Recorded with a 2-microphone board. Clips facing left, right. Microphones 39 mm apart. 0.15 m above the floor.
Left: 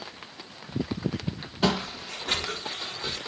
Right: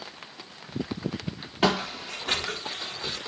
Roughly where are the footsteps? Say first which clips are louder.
Right 2 dB; right.